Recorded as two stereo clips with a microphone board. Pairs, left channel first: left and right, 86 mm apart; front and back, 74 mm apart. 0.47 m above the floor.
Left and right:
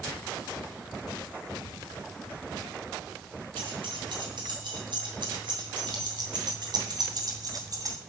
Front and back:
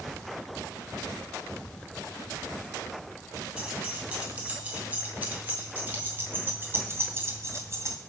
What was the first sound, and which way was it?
Keys jangling, 105° right.